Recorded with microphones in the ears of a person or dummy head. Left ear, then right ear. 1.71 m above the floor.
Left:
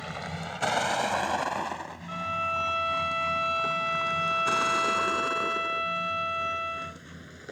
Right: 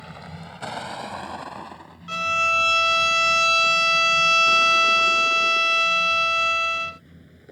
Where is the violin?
85° right.